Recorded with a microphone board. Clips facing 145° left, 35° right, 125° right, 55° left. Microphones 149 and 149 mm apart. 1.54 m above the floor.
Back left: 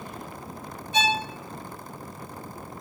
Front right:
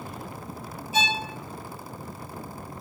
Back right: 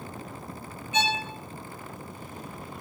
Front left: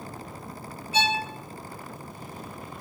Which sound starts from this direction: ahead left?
A violin, at 0.9 s.